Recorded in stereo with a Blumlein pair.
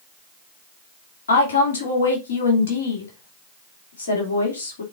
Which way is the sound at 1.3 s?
65° left.